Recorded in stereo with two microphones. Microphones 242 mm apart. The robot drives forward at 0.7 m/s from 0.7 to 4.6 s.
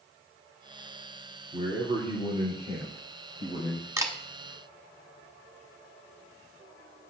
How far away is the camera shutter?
About 1.1 m.